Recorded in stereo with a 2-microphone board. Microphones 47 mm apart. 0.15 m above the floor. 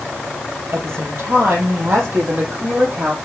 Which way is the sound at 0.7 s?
60° right (ahead or behind).